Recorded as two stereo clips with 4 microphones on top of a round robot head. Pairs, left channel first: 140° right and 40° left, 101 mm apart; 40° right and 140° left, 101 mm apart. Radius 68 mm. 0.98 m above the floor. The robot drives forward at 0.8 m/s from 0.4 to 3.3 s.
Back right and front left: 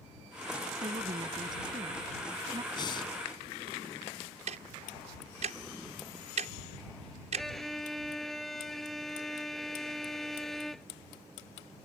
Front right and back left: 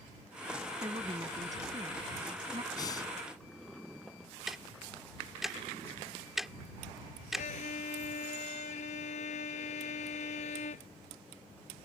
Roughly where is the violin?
Ahead right.